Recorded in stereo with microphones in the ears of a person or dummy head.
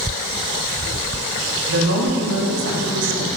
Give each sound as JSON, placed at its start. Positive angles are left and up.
{"t": 1.6, "sound": "a woman speaking", "side_deg": -70, "distance_m": 3.0}